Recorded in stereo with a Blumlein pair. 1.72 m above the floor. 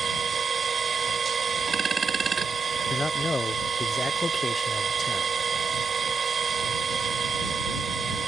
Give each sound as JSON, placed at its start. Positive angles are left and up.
{"t": 0.0, "sound": "a machine running", "azimuth_deg": -20}
{"t": 2.9, "sound": "a man speaking", "azimuth_deg": 10}